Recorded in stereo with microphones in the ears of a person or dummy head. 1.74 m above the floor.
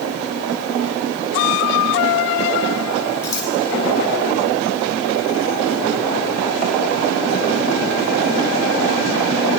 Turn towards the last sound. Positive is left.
turn(degrees=25)  # may be behind; listen again after turning